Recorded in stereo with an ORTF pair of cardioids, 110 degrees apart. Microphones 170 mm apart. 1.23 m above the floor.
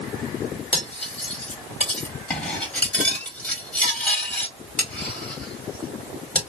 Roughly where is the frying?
I don't hear frying.